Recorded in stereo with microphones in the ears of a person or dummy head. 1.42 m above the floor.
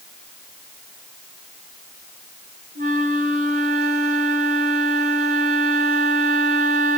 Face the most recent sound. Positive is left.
turn(degrees=-40)  # may be behind; listen again after turning